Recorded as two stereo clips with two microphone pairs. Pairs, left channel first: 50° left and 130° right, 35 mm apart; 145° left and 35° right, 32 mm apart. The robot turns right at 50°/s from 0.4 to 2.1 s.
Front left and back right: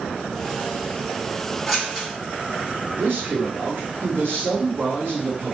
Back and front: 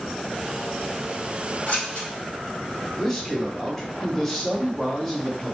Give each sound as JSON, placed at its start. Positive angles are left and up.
{"t": 1.7, "sound": "scissors", "azimuth_deg": 140, "distance_m": 1.5}
{"t": 3.0, "sound": "a man speaking", "azimuth_deg": -135, "distance_m": 1.2}